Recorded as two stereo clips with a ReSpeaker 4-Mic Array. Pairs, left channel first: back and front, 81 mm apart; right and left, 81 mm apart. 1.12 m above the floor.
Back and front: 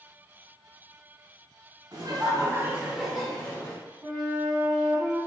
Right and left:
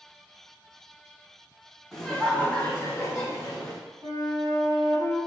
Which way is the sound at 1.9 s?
5° right.